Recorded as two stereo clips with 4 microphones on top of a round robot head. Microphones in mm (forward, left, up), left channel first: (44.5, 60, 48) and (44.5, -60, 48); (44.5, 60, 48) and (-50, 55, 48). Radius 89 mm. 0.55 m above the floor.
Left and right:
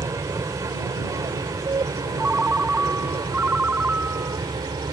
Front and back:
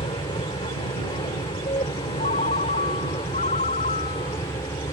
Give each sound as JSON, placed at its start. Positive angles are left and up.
{"t": 0.0, "sound": "an aircraft", "azimuth_deg": -30}
{"t": 2.2, "sound": "a ringtone", "azimuth_deg": -10}